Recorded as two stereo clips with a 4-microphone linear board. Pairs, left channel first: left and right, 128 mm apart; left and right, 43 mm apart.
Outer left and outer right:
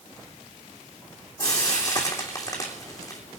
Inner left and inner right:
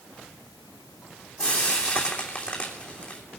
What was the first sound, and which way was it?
Frying, 30° left (ahead or behind).